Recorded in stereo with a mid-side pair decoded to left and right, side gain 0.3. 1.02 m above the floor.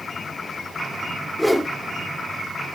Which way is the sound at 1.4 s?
5° left.